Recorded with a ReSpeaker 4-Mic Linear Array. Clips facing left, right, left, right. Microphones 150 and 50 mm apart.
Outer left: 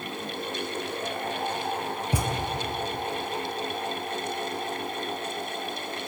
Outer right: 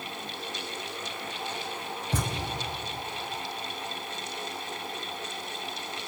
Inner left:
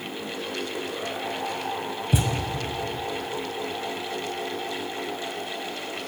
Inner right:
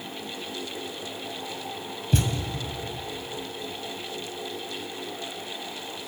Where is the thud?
10° left (ahead or behind), 1.0 m.